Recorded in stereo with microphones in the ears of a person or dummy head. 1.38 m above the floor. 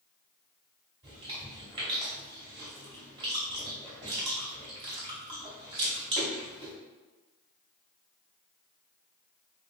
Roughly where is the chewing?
Centre.